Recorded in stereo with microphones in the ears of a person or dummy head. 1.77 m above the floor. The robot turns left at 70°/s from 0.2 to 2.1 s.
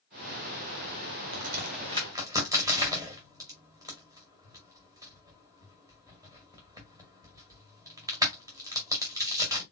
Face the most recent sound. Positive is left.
turn(degrees=-25)  # may be behind; listen again after turning